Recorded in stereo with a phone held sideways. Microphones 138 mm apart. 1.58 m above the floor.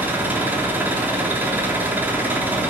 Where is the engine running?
15° right (ahead or behind), 3 m.